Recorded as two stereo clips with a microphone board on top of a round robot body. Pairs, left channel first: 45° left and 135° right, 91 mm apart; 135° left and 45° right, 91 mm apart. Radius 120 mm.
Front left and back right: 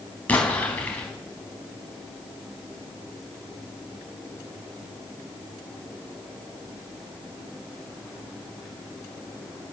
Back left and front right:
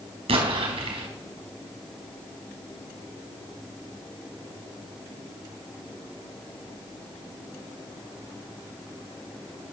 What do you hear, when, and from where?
0.3 s an explosion: 30° right, 4 m